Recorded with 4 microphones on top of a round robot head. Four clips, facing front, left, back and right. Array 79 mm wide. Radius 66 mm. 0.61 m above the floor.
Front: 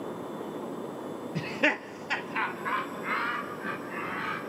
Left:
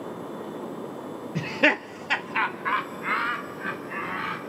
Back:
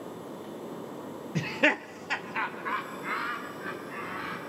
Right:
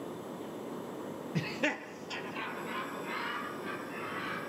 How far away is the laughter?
About 0.6 m.